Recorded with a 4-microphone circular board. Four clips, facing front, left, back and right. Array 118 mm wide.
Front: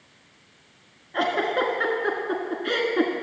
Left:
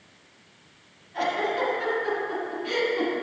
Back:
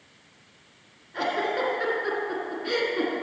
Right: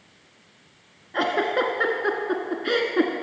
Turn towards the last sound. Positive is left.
turn(degrees=-65)